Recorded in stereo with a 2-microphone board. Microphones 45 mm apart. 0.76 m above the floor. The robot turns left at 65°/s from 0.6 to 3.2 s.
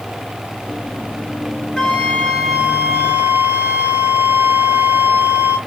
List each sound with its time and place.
1.8 s a flute: 15° left, 2.5 m; by 5.6 s 75° right, 2.5 m